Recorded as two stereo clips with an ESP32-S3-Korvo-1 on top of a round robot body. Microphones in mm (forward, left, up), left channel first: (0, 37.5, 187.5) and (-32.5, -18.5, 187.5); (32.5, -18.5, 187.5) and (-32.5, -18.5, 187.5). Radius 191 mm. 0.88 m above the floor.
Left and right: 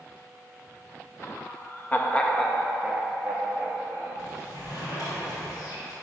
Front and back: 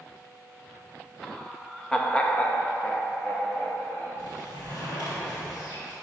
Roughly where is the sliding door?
Ahead left.